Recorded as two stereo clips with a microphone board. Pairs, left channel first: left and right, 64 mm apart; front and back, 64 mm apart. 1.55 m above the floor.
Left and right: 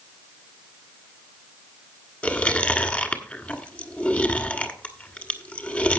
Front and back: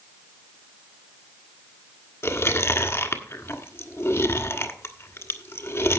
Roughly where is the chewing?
Ahead left.